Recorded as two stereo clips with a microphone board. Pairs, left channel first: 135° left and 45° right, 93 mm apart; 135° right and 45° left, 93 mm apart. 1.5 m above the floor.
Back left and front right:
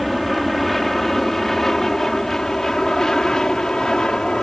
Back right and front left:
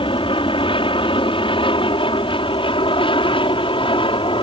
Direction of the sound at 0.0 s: 135° right.